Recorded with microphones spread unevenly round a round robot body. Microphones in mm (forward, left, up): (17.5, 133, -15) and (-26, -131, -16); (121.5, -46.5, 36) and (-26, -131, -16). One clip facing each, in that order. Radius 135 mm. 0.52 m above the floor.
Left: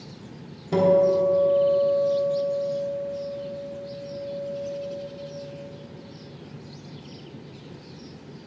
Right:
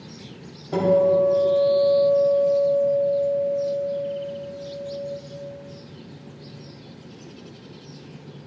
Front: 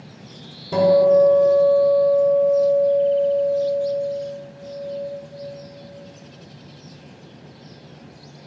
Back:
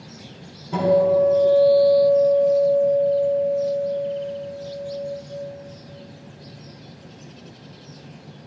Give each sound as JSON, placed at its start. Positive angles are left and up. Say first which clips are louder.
{"t": 0.7, "sound": "a guitar", "louder": "right 1 dB, front 3 dB", "azimuth_deg": 40, "distance_m": 3.0}